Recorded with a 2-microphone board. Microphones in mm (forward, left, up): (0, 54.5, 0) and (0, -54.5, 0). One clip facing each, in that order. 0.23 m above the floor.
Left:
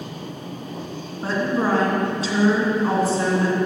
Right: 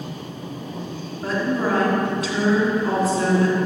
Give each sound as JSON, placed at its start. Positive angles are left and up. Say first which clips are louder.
{"t": 1.2, "sound": "a woman speaking", "louder": "left 1 dB", "side_deg": 30, "distance_m": 2.5}